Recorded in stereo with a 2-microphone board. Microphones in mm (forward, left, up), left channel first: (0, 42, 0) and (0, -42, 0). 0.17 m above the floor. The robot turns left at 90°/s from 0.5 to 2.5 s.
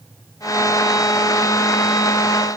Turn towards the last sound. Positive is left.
No sound to turn to.